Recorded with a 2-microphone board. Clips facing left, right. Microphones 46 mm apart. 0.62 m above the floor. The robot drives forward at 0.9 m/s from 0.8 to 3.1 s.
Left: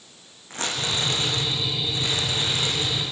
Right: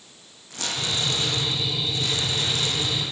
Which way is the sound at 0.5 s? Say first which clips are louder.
Left 1 dB; 35° left (ahead or behind).